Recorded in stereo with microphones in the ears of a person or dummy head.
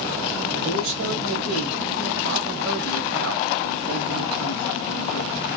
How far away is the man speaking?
About 1.3 m.